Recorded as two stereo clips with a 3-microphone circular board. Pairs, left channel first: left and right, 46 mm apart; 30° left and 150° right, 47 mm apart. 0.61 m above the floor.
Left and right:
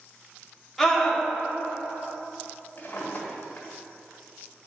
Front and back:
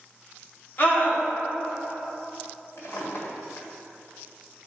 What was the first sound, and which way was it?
A scream, 5° left.